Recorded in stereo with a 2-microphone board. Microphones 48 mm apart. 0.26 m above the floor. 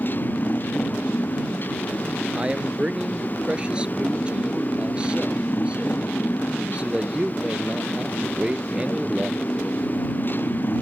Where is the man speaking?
20° right (ahead or behind).